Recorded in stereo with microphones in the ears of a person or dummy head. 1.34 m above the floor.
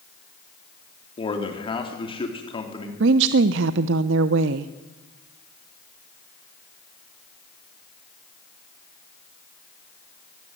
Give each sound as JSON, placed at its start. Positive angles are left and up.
{"t": 1.2, "sound": "a man speaking", "side_deg": 30, "distance_m": 4.0}
{"t": 3.0, "sound": "a woman speaking", "side_deg": -75, "distance_m": 0.8}